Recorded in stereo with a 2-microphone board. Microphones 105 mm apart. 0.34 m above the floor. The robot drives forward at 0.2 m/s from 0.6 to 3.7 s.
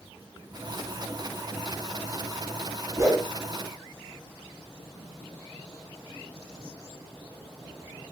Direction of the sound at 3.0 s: 30° right (ahead or behind).